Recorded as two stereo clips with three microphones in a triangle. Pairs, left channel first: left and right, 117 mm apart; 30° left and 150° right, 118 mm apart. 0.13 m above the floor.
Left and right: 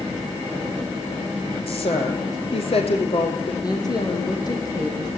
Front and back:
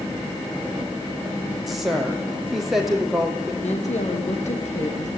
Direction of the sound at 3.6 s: 35° left.